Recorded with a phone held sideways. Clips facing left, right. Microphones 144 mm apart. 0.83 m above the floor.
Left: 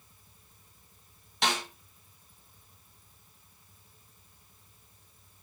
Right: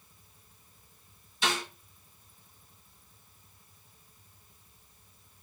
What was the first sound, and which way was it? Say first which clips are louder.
A snare drum: left 1 dB; 80° left.